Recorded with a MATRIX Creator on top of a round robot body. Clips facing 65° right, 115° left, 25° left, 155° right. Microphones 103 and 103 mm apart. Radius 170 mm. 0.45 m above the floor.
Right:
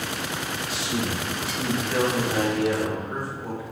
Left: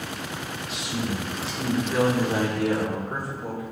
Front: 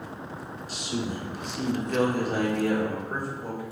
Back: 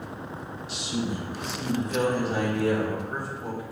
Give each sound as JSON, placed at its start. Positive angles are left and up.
{"t": 0.7, "sound": "a man speaking", "azimuth_deg": -20, "distance_m": 1.8}